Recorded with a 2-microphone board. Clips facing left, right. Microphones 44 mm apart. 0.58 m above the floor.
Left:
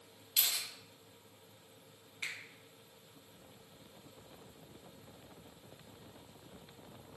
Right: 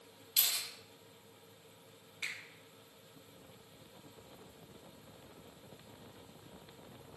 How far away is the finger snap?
About 3.5 m.